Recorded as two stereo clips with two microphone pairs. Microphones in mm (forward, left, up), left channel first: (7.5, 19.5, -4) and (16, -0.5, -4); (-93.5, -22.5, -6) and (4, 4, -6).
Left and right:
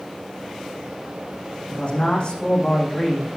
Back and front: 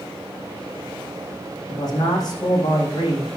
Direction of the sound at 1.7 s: 150° left.